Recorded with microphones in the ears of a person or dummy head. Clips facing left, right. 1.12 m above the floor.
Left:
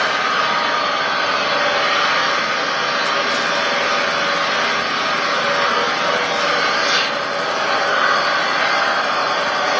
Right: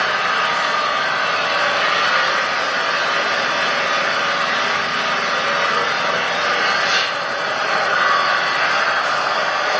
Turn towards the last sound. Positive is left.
turn(degrees=40)  # may be behind; listen again after turning